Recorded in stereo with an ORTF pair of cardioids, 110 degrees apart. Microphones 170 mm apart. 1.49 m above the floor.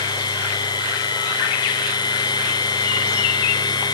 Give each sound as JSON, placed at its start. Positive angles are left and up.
{"t": 0.0, "sound": "a machine running", "azimuth_deg": 25}